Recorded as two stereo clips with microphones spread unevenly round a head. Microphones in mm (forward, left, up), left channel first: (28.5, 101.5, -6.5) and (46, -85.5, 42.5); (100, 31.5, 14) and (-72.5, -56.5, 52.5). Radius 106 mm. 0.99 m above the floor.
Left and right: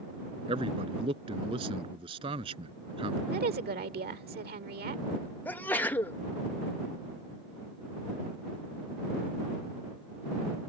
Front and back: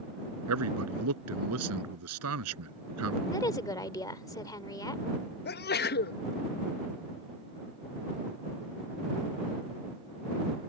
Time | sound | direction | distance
0.5 | a man speaking | 150° right | ?
3.3 | a woman speaking | 45° right | ?
5.5 | a sneeze | 25° left | ?